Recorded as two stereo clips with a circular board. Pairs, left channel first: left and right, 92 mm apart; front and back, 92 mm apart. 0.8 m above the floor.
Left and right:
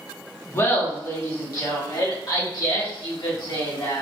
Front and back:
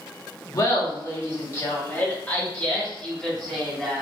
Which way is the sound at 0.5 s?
35° left.